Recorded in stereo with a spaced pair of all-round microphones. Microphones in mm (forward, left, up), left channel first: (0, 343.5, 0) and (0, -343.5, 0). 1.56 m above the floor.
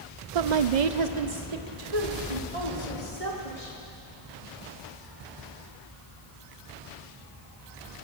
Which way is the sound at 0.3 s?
60° right (ahead or behind).